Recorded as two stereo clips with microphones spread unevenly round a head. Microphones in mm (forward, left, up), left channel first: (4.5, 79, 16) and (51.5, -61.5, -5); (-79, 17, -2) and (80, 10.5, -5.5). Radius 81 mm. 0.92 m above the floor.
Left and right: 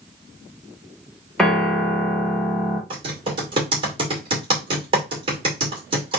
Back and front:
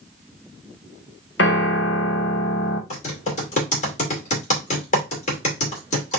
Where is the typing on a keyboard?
135° right, 2.5 m.